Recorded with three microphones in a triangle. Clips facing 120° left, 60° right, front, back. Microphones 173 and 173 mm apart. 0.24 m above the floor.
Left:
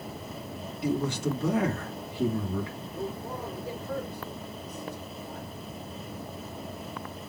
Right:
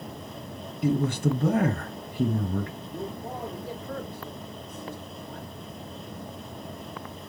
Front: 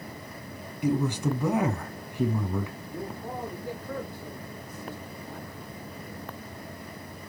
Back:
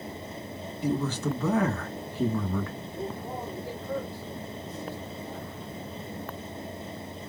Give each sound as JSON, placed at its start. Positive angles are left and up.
{"t": 0.8, "sound": "a man speaking", "azimuth_deg": -75, "distance_m": 1.8}
{"t": 2.9, "sound": "a man speaking", "azimuth_deg": -40, "distance_m": 4.5}